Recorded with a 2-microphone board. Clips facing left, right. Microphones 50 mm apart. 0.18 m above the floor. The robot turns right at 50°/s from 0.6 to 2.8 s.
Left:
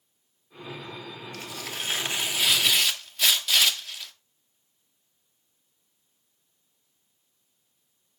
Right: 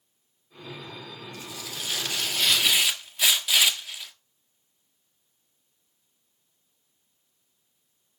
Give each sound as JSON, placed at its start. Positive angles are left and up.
{"t": 1.3, "sound": "tearing paper", "azimuth_deg": 120, "distance_m": 1.6}